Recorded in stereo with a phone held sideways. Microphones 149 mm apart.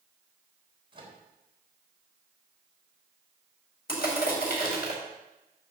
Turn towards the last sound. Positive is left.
turn(degrees=75)  # may be behind; listen again after turning